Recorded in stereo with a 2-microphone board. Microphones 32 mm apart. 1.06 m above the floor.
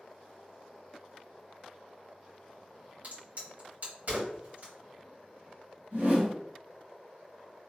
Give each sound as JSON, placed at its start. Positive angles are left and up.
{"t": 3.0, "sound": "a crack", "side_deg": -55, "distance_m": 1.8}
{"t": 5.9, "sound": "a whoosh", "side_deg": -65, "distance_m": 1.7}